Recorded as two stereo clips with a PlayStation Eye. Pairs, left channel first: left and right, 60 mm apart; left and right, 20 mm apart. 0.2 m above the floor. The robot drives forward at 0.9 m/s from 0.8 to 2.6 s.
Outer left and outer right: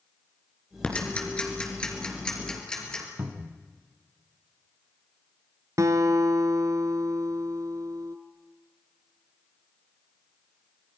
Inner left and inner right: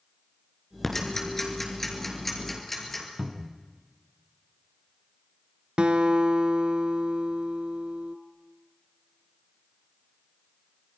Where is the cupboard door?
50° right (ahead or behind), 1.9 m.